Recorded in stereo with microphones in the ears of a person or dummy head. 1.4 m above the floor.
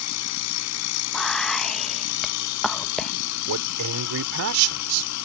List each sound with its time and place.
0.0 s a machine running: 85° left
1.1 s whispering: centre (ahead or behind)
3.5 s a man speaking: 85° right